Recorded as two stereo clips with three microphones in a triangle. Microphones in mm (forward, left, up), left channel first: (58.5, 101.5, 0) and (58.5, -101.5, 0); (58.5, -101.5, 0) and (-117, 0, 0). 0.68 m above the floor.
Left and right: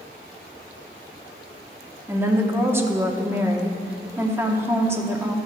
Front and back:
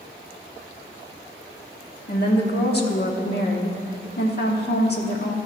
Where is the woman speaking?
15° right, 1.1 m.